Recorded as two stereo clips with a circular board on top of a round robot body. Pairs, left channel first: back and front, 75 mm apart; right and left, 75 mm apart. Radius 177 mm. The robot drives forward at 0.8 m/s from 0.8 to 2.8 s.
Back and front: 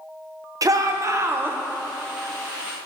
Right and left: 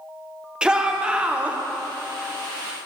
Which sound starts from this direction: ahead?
A shout, at 0.6 s.